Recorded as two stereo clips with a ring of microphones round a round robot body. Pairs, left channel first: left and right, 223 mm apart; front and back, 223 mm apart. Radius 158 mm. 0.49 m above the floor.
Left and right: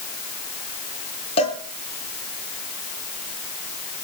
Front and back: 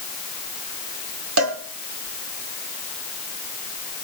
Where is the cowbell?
165° left, 2.5 m.